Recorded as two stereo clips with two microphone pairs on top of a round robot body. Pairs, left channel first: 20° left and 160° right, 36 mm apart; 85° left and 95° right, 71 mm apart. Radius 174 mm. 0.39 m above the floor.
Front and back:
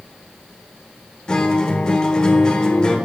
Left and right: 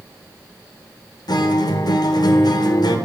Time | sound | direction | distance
1.3 | a guitar | 85° left | 0.9 m